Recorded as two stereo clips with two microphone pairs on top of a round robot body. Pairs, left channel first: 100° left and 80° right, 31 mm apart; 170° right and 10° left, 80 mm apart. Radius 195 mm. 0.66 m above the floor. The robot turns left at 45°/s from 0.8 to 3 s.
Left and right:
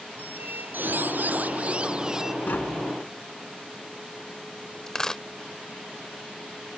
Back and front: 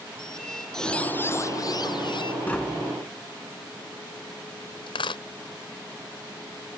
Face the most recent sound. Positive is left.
turn(degrees=175)